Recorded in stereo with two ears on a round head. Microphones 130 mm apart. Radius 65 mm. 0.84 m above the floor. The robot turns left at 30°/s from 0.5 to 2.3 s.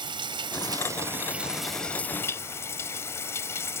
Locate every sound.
0.0 s running water: 145° right; by 3.8 s 160° left